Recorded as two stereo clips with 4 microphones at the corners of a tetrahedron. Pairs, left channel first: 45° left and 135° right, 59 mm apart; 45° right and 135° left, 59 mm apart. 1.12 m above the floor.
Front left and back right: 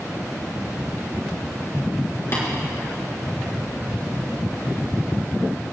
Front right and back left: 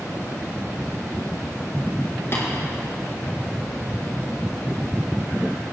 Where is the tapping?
Straight ahead, 4.5 m.